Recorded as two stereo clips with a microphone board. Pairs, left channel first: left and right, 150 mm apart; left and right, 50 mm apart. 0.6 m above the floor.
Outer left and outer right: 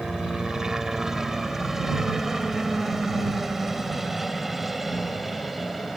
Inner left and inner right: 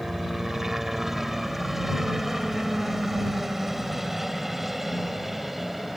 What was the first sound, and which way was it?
A helicopter, 5° right (ahead or behind).